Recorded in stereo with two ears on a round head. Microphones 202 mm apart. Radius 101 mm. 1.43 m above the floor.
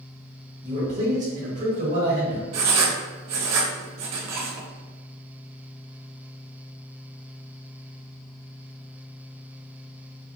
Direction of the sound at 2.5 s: 80° right.